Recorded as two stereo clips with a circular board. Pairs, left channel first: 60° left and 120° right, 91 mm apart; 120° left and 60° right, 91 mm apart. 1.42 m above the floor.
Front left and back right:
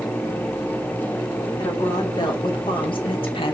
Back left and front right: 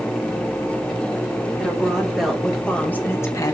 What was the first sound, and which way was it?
A woman speaking, 20° left.